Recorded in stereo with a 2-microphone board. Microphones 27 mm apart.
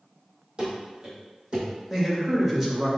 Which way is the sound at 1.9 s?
20° right (ahead or behind).